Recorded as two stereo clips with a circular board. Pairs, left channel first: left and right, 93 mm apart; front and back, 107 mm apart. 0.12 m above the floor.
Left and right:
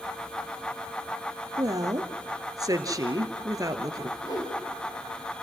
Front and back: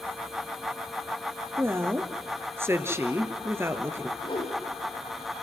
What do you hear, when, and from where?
1.6 s a woman speaking: 120° right, 1.9 m
4.2 s a whoosh: 40° left, 5.5 m